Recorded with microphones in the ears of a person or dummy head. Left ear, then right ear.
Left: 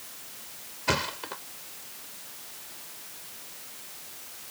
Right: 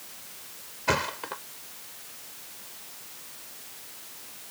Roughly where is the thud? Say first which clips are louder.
Right 1 dB; centre.